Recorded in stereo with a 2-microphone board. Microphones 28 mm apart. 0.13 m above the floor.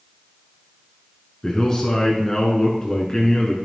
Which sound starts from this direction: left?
A man speaking, at 1.4 s.